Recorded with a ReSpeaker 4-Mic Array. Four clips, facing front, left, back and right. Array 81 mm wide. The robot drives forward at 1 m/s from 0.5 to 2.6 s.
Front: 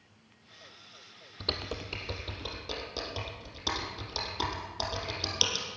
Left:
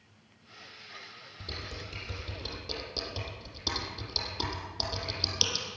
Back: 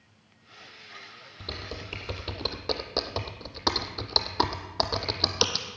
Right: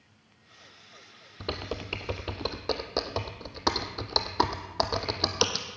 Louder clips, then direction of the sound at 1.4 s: Right 9 dB, front 2 dB; 70° right.